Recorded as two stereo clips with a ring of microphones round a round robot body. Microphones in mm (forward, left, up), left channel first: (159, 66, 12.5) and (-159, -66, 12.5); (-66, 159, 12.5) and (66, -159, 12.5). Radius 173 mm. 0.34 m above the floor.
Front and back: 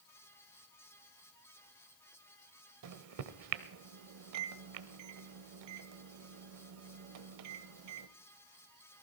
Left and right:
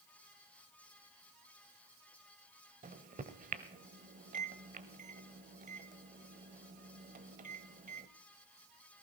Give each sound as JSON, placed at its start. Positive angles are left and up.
{"t": 2.8, "sound": "a microwave", "azimuth_deg": -130, "distance_m": 1.1}